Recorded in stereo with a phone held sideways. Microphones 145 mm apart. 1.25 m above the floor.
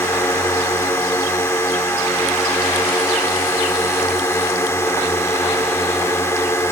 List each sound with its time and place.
0.0 s a drone: 20° left (ahead or behind)